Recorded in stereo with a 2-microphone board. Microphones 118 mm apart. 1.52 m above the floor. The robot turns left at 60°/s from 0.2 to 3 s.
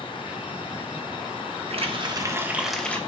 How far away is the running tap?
About 1.2 m.